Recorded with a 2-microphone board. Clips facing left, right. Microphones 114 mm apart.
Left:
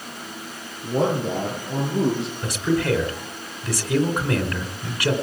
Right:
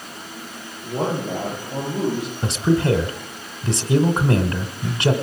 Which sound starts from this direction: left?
A man speaking, at 0.8 s.